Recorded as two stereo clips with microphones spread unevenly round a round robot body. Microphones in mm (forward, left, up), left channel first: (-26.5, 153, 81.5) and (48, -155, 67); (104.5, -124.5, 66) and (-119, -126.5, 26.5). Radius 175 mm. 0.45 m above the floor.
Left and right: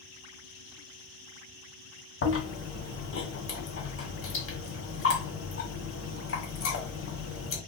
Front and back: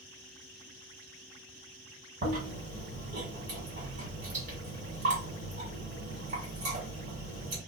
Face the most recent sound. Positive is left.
turn(degrees=140)